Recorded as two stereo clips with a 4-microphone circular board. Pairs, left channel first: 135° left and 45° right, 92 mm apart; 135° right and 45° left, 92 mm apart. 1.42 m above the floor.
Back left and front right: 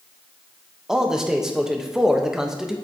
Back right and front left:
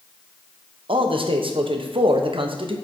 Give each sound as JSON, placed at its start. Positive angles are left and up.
{"t": 0.9, "sound": "a man speaking", "azimuth_deg": 40, "distance_m": 0.9}